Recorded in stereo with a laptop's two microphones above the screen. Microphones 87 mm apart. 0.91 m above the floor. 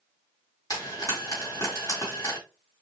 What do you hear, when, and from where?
0.7 s frying: 40° left (ahead or behind), 2 m